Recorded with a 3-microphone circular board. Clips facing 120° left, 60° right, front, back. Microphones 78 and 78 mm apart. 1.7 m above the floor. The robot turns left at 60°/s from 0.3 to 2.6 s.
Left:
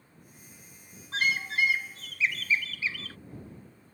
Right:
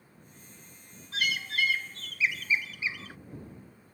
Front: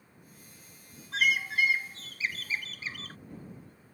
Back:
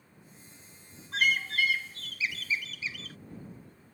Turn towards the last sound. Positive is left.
turn(degrees=5)